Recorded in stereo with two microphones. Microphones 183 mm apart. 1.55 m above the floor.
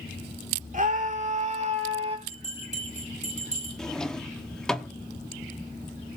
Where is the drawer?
5° left (ahead or behind), 1.1 m.